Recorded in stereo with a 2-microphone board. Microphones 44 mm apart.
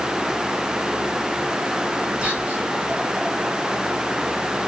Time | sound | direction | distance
2.2 | whispering | 25° right (ahead or behind) | 3 m